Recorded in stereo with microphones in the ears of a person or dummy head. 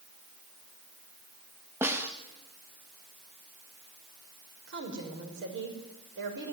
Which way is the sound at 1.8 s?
10° right (ahead or behind).